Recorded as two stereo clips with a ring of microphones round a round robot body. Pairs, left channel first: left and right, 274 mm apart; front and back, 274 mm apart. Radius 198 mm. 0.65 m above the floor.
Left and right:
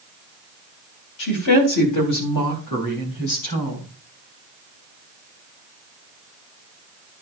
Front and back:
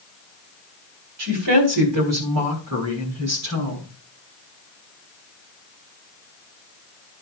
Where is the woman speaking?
130° left, 3.5 m; by 3.9 s 125° left, 5.5 m.